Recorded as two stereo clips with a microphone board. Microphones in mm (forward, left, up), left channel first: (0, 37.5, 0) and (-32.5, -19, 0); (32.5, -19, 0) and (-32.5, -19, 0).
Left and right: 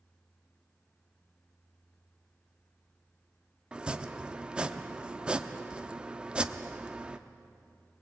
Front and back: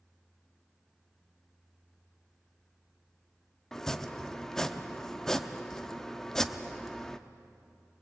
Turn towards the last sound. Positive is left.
turn(degrees=-75)